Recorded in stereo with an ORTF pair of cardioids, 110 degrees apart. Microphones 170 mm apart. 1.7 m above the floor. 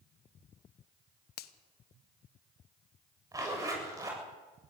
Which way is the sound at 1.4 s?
65° left.